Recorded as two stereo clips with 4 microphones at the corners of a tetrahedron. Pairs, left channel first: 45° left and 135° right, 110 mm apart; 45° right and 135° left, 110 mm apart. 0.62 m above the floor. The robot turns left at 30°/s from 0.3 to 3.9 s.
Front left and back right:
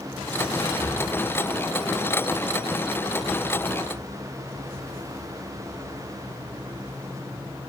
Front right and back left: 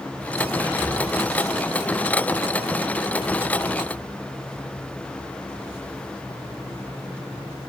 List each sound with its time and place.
0.6 s whispering: 80° left, 1.6 m; by 1.0 s 70° left, 1.6 m